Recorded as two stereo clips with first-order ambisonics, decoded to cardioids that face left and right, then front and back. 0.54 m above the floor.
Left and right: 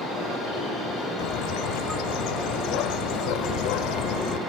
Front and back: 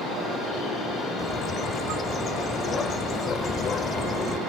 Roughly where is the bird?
Left.